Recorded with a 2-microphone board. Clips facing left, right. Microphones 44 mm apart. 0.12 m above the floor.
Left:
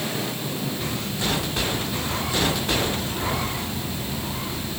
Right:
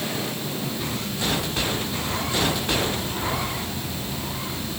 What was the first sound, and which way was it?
Only background noise.